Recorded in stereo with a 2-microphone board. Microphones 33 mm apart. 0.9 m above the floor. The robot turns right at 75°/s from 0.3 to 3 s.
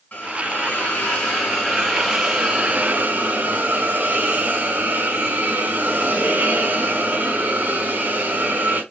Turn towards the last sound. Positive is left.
turn(degrees=-120)